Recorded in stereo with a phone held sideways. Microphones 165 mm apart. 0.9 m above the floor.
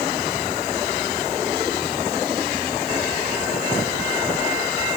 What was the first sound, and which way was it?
Only background noise.